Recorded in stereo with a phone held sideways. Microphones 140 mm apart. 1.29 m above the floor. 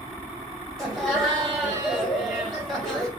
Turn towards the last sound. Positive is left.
turn(degrees=5)  # may be behind; listen again after turning